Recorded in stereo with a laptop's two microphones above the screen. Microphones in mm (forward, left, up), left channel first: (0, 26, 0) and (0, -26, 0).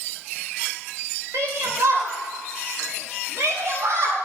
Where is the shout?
85° right, 4 m.